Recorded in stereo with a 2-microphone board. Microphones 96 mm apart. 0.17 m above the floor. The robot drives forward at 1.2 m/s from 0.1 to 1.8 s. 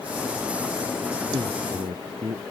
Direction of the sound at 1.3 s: 85° right.